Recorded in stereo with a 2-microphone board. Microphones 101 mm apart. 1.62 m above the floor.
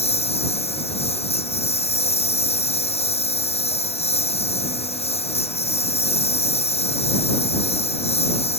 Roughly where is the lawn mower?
Left.